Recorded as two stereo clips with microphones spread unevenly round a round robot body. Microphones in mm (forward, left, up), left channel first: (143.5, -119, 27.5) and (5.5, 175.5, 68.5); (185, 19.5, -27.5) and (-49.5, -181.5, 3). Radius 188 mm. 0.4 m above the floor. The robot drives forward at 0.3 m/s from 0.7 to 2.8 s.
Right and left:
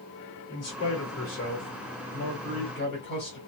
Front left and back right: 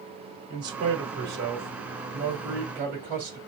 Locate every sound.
0.5 s a man speaking: 90° right, 1.2 m; by 3.4 s 130° right, 1.3 m